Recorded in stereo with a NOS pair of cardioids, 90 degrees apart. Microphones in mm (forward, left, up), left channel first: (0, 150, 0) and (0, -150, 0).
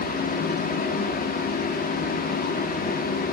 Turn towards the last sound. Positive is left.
turn(degrees=30)